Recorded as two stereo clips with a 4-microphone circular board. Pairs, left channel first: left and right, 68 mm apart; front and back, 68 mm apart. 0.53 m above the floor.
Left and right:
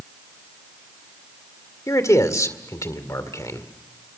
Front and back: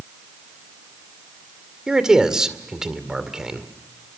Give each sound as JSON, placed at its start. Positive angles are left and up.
{"t": 1.9, "sound": "a man speaking", "azimuth_deg": 105, "distance_m": 2.0}